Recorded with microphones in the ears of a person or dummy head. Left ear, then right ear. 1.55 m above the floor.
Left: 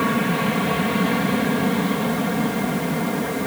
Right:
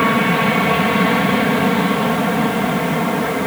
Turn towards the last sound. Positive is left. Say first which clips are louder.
# right 6 dB
turn(degrees=-25)  # may be behind; listen again after turning